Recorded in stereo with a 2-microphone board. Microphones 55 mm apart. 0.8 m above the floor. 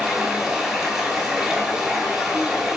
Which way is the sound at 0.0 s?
5° right (ahead or behind).